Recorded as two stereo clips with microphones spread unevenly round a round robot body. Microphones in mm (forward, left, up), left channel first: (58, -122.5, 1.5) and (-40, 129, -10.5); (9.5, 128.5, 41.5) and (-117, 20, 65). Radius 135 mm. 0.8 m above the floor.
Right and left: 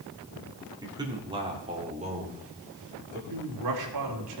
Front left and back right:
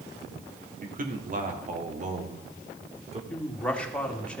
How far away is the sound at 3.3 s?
About 2.5 m.